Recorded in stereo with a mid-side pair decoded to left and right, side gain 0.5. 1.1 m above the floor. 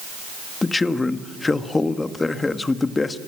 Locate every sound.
0.6 s a man speaking: 25° left, 1.6 m